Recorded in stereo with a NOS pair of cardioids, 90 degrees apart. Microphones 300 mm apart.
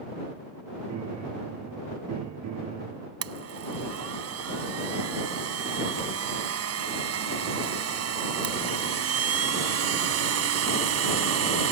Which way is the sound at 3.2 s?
55° right.